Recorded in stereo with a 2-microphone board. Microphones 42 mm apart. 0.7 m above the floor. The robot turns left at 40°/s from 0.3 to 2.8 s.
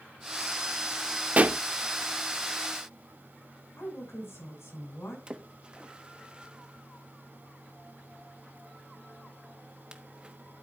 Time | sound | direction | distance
1.4 | a pop | 35° right (ahead or behind) | 0.6 m
3.8 | a woman speaking | 80° left | 7.5 m
5.3 | a splash | 25° right (ahead or behind) | 1.0 m